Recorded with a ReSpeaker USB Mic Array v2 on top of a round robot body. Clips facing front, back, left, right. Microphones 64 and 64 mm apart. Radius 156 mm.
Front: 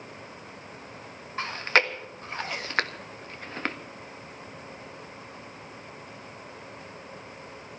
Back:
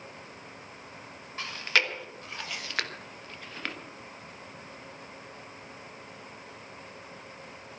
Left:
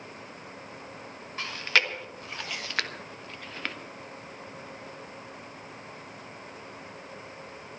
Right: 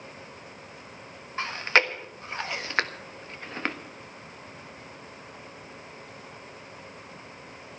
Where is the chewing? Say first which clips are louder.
Front 4 dB, right 3 dB; 40° right, 1.6 m.